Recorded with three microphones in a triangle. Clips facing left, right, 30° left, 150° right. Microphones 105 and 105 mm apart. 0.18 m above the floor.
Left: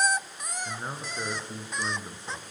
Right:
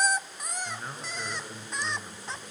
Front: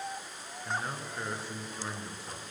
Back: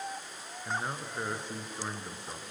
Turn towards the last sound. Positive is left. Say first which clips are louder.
# left 2 dB, even
turn(degrees=145)